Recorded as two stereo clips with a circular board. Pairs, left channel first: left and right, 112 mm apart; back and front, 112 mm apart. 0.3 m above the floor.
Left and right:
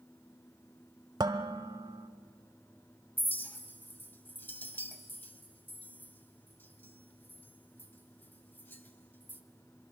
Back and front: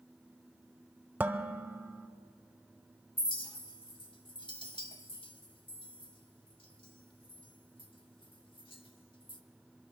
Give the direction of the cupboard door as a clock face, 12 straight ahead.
No cupboard door in this recording.